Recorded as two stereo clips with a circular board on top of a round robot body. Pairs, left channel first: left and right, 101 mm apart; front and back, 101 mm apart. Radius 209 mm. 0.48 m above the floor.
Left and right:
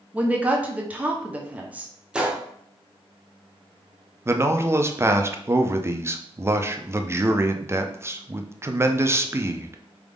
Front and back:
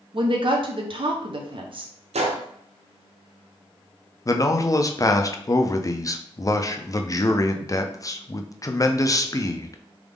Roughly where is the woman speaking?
Behind.